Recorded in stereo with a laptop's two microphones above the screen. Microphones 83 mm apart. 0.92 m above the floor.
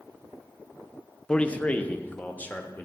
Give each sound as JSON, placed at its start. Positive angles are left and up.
{"t": 1.3, "sound": "a man speaking", "side_deg": 10, "distance_m": 0.6}